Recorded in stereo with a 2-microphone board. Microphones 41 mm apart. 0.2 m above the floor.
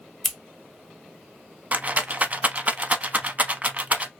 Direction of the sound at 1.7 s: 35° right (ahead or behind).